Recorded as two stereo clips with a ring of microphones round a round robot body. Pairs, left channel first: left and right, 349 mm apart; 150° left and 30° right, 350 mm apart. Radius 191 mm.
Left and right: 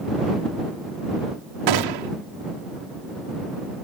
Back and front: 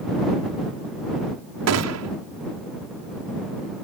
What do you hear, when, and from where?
1.7 s a gunshot: 75° right